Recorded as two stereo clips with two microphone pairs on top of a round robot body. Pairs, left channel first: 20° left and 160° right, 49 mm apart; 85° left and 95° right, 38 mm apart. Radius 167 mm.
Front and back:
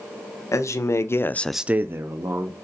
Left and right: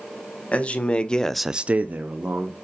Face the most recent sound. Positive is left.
turn(degrees=-145)